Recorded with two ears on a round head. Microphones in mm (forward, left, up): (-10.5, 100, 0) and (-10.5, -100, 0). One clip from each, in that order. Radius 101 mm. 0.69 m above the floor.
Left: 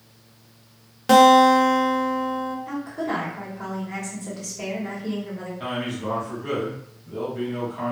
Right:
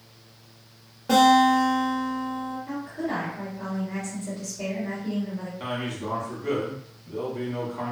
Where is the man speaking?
Centre (ahead or behind), 1.2 m.